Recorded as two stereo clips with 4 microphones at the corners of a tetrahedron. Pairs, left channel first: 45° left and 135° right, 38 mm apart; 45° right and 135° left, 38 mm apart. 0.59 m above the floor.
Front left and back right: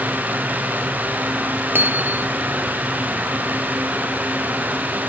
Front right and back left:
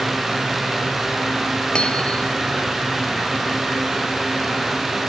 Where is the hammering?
110° right.